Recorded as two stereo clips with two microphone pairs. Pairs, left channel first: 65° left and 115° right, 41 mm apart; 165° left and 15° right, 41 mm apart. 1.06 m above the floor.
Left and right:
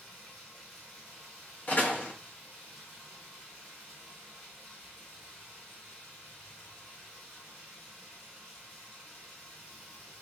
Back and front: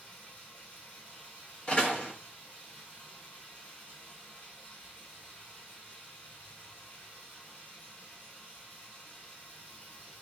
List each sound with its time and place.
0.0 s running water: 135° left, 1.5 m
1.7 s a door slam: 105° left, 0.6 m